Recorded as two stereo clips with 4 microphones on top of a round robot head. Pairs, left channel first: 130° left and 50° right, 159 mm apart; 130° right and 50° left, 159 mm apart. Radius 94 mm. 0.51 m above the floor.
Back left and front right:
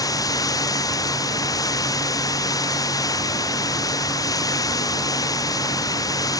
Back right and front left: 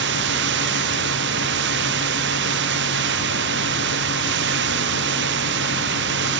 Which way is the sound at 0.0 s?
60° left.